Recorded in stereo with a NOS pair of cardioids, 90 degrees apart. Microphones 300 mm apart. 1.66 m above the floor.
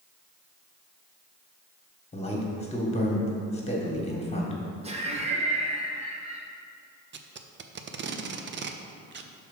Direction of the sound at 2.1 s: 20° left.